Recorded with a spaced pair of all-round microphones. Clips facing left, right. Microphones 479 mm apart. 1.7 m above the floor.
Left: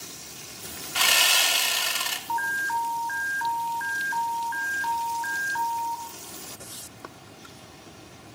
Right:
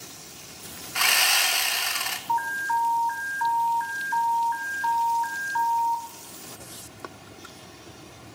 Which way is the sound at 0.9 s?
55° left (ahead or behind).